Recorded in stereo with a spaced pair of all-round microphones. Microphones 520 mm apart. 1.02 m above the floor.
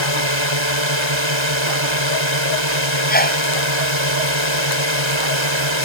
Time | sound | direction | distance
0.0 | a drone | 60° right (ahead or behind) | ?
3.1 | a sneeze | 15° left (ahead or behind) | ?